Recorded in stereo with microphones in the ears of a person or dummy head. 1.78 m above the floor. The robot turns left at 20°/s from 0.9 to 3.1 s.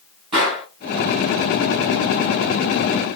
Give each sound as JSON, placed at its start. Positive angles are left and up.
{"t": 0.3, "sound": "a gunshot", "side_deg": -25, "distance_m": 2.5}